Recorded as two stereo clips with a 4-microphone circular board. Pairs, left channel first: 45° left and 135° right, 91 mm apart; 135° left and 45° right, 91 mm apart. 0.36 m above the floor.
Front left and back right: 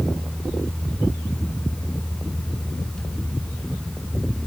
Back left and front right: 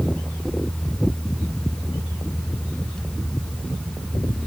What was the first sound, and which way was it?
Only background noise.